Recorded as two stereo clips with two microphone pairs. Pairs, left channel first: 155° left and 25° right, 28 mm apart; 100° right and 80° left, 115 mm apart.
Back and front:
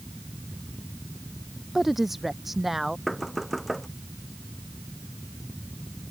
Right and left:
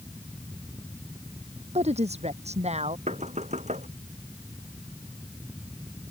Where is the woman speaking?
60° left.